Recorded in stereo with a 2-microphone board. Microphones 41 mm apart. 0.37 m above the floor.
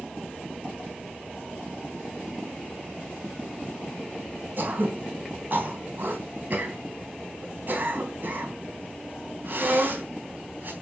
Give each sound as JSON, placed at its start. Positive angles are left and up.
{"t": 4.6, "sound": "throat clearing", "side_deg": -50, "distance_m": 3.5}